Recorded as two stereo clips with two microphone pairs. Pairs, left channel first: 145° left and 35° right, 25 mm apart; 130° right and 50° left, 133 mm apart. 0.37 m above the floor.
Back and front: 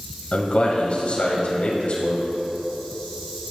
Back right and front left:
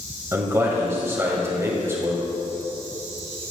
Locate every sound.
0.3 s a man speaking: 115° left, 1.6 m